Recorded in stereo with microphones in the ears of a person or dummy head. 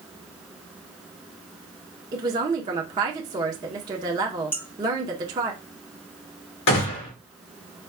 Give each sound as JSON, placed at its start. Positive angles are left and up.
{"t": 2.1, "sound": "a woman speaking", "side_deg": -25, "distance_m": 0.7}
{"t": 4.5, "sound": "dishes clattering", "side_deg": 10, "distance_m": 1.1}
{"t": 6.7, "sound": "a gunshot", "side_deg": 75, "distance_m": 1.8}